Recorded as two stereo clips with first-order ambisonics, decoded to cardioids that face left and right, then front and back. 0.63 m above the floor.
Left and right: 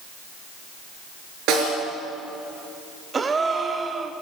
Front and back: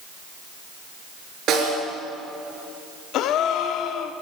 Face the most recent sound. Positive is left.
turn(degrees=-25)